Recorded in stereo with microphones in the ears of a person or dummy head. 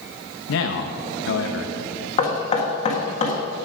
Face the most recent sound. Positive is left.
turn(degrees=40)  # may be behind; listen again after turning